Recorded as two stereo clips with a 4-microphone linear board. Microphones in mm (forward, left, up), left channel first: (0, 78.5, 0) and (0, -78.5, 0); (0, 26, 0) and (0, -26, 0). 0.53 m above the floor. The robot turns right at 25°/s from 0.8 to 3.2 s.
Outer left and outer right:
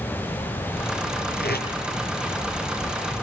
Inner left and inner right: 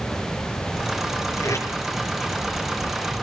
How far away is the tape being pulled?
About 5 m.